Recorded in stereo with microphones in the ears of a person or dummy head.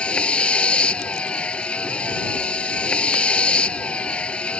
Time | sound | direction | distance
0.0 | a vehicle | 5° left (ahead or behind) | ?